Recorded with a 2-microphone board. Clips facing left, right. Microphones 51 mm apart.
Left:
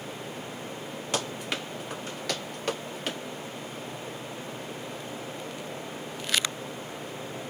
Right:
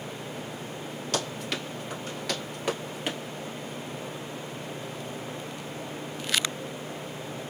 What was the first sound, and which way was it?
Running footsteps, 20° left (ahead or behind).